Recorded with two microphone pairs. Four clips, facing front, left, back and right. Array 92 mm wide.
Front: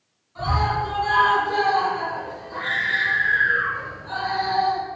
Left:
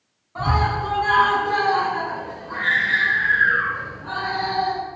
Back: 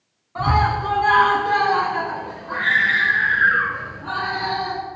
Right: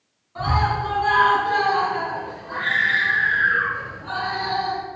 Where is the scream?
155° left, 6.5 m; by 4.8 s 175° left, 7.5 m.